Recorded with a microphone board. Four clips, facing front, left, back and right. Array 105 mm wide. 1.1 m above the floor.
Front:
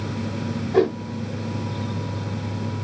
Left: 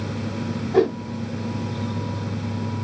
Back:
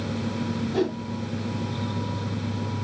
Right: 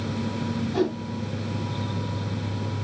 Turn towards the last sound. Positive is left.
turn(degrees=50)